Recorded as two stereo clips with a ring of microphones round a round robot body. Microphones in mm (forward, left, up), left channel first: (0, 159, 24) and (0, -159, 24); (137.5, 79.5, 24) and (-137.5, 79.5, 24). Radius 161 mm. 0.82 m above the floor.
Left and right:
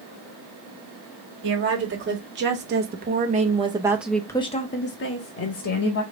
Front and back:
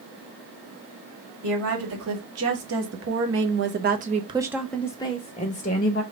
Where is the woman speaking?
140° right, 2.0 m; by 6.0 s 55° left, 1.2 m.